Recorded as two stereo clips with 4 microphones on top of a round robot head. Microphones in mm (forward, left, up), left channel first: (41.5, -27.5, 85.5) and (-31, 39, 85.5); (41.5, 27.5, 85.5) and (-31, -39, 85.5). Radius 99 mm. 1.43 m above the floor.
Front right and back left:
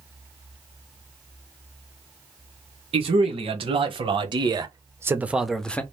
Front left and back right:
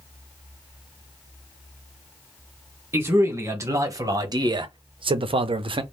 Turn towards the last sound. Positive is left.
turn(degrees=-115)